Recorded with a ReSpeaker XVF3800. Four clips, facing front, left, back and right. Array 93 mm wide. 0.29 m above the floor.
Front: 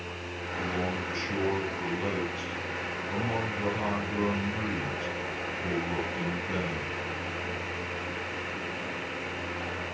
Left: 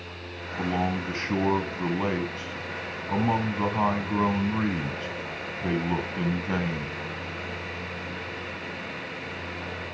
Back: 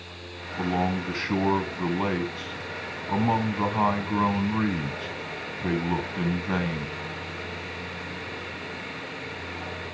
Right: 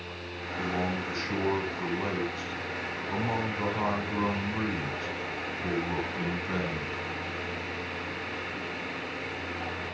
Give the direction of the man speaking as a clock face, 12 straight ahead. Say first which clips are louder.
Left 4 dB, back 6 dB; 7 o'clock.